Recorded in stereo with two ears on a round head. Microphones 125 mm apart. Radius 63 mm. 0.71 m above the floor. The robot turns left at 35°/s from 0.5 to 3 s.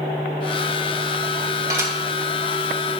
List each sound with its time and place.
1.7 s dishes clattering: 25° right (ahead or behind), 2.5 m; by 1.9 s 15° right (ahead or behind), 2.5 m